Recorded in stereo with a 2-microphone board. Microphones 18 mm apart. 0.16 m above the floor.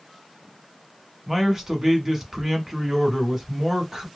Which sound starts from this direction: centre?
A man speaking, at 1.3 s.